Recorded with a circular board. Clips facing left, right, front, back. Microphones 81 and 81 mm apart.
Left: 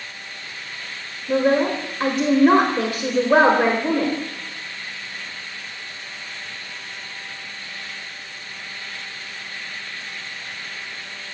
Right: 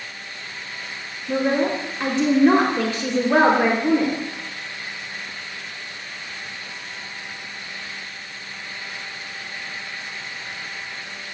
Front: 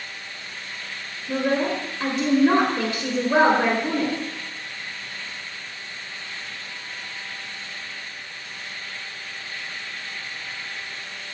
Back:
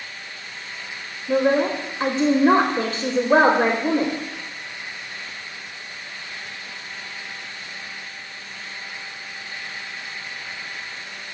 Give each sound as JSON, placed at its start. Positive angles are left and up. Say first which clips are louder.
{"t": 1.3, "sound": "a woman speaking", "louder": "left 2 dB, back 4 dB", "azimuth_deg": 165, "distance_m": 0.9}